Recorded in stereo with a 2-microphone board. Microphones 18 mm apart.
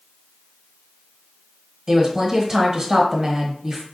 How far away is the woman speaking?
About 0.9 m.